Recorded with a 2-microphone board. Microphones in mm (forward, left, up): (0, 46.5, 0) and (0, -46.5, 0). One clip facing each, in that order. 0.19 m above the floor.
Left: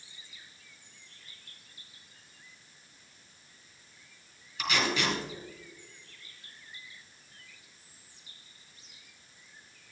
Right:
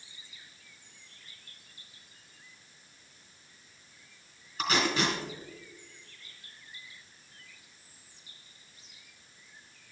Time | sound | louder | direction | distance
4.6 | tape being pulled | right 2 dB | 35° right (ahead or behind) | 3.5 m